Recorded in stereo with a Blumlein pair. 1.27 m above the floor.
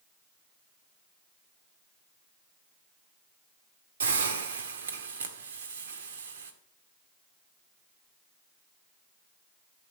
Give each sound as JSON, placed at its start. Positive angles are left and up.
{"t": 4.0, "sound": "a hiss", "azimuth_deg": -65, "distance_m": 1.9}